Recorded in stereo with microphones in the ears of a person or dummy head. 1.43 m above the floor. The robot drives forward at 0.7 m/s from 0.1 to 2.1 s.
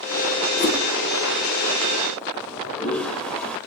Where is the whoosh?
40° left (ahead or behind), 2 m.